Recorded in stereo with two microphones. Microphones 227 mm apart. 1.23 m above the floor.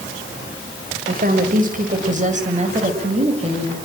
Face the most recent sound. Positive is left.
turn(degrees=-25)  # may be behind; listen again after turning